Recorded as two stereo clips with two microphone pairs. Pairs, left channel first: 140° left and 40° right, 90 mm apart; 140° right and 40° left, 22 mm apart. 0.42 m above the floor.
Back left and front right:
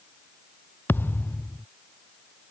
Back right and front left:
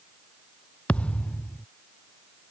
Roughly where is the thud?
Behind right.